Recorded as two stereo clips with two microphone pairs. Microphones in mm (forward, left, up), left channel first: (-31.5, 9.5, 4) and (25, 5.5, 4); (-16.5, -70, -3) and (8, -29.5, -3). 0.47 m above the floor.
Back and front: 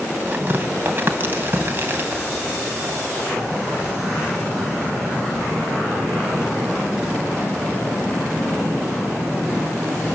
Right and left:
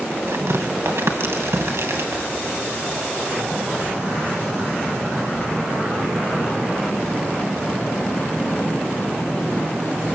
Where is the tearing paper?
50° left, 2.5 m.